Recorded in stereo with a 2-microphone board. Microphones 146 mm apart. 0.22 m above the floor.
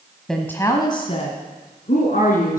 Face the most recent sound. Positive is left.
turn(degrees=70)  # may be behind; listen again after turning